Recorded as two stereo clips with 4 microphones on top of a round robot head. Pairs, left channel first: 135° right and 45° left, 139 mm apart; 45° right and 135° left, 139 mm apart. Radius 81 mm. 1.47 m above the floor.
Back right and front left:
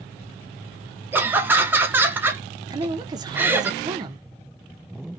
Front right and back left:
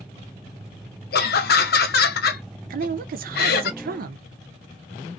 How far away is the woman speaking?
About 0.6 m.